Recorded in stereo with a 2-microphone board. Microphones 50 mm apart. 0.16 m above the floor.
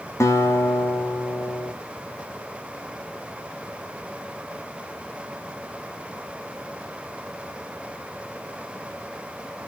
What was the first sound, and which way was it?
A guitar, 75° left (ahead or behind).